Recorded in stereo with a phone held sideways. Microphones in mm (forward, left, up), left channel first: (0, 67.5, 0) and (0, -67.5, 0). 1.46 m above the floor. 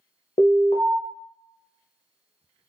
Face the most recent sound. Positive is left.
turn(degrees=60)  # may be behind; listen again after turning